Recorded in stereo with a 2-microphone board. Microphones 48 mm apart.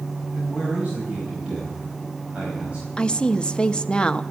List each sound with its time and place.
0.3 s a man speaking: 25° right (ahead or behind), 4.5 m
3.0 s a woman speaking: 20° left (ahead or behind), 0.6 m